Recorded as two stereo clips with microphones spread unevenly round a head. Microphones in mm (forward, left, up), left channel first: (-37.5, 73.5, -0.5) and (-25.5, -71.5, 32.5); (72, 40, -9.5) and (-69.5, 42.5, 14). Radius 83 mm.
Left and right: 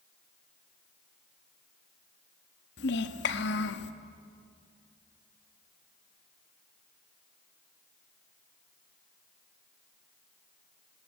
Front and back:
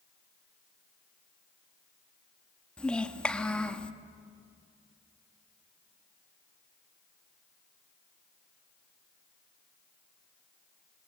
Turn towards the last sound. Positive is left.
turn(degrees=85)